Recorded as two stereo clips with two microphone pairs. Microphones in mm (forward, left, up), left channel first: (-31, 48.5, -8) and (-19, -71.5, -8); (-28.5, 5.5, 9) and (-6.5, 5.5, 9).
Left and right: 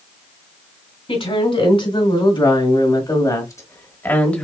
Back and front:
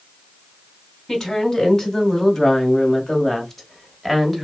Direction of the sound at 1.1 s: 125° left.